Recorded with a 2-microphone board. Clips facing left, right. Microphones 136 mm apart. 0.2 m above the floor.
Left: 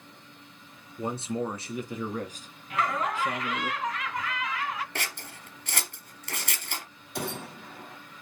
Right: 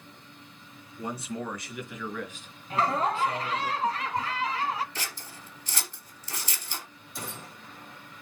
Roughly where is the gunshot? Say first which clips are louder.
Left 7 dB; left.